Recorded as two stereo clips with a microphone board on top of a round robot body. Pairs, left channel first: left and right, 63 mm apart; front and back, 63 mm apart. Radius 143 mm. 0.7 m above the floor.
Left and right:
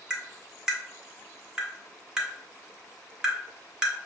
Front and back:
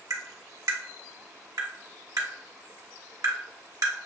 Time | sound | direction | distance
0.1 | tapping | 165° right | 1.3 m